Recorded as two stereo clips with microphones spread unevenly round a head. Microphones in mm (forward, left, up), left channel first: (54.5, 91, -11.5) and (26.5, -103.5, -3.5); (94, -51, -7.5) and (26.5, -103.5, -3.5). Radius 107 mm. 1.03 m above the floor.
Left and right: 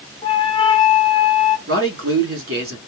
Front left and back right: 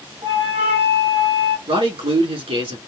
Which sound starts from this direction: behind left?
A flute, at 0.2 s.